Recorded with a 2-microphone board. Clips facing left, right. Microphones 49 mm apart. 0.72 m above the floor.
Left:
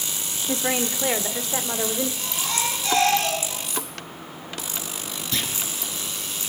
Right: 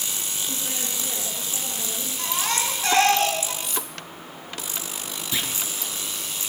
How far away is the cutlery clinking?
About 6 m.